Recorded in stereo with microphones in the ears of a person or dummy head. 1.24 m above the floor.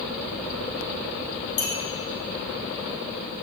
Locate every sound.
1.6 s a clink: 20° left (ahead or behind), 2 m